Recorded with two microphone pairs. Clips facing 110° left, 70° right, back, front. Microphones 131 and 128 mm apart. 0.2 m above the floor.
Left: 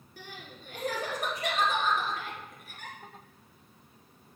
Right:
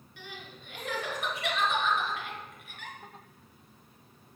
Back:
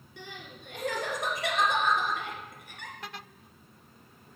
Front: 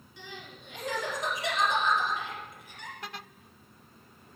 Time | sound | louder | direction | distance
0.2 | crying | even, back 1 dB | 160° left | 1.4 m